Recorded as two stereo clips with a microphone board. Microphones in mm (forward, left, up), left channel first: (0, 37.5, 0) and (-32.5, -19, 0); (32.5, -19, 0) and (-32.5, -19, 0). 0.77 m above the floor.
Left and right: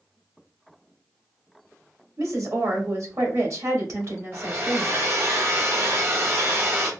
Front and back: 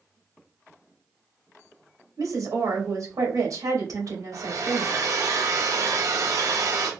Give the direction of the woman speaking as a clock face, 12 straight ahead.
5 o'clock.